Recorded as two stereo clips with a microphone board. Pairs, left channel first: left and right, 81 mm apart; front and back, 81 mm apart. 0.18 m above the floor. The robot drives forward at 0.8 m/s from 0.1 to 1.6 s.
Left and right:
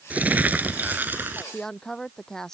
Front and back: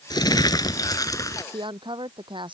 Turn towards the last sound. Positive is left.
turn(degrees=175)